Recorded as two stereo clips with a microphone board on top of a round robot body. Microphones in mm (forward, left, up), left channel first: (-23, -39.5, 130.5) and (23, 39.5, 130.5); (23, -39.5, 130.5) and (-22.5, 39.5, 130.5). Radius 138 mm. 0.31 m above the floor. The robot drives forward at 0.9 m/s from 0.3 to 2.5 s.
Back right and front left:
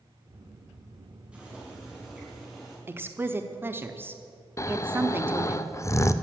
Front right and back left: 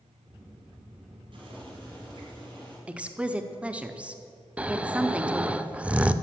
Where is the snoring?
170° right, 0.7 m.